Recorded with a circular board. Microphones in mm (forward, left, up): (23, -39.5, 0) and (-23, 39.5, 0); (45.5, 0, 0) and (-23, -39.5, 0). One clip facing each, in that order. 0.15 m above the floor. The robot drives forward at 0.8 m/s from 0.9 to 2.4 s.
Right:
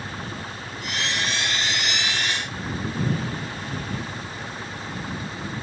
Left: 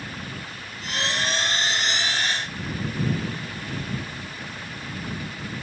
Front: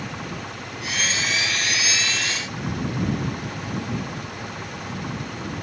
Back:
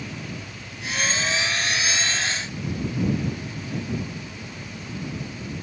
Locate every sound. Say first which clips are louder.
0.0 s an engine running: right 2 dB, front 3 dB; 5° left